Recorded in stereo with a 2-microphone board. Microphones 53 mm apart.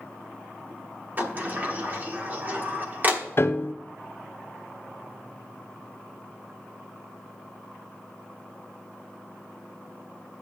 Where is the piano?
45° left (ahead or behind), 0.5 m.